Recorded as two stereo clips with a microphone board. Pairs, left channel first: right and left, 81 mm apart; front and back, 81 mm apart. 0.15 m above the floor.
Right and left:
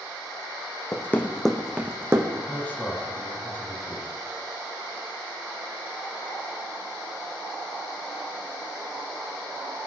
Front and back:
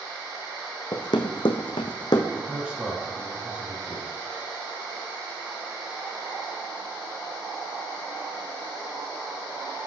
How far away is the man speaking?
About 1.6 m.